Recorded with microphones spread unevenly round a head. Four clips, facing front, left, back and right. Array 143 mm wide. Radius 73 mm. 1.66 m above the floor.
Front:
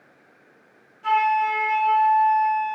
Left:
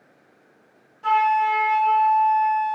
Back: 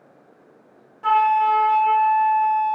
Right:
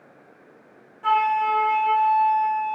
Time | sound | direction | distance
1.0 | a flute | 165° right | 2.5 m